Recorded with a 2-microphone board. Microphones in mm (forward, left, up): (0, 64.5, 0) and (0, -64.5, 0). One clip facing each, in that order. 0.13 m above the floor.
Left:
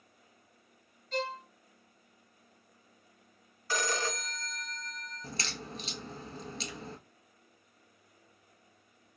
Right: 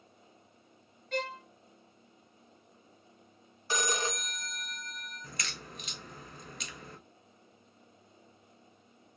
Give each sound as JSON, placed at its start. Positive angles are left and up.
{"t": 1.1, "sound": "a violin", "side_deg": -60, "distance_m": 0.7}
{"t": 3.7, "sound": "a phone ringing", "side_deg": -20, "distance_m": 0.6}
{"t": 5.2, "sound": "a crack", "side_deg": 35, "distance_m": 0.7}